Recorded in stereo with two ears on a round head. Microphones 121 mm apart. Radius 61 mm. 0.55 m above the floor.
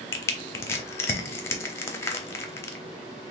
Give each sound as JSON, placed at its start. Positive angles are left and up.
{"t": 0.1, "sound": "crushing", "side_deg": 20, "distance_m": 0.7}